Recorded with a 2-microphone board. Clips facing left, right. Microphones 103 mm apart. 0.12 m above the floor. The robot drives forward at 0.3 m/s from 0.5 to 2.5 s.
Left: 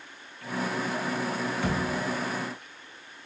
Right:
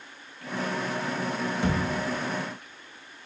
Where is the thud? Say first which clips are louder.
Right 3 dB; 20° right (ahead or behind), 1.0 m.